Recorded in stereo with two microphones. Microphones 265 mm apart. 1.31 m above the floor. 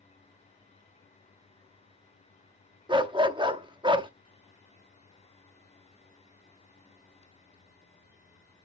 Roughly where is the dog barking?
Centre.